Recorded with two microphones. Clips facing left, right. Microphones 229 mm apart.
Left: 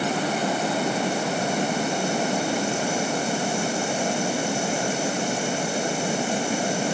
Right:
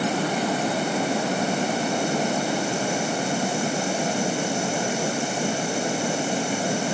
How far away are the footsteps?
I don't hear footsteps.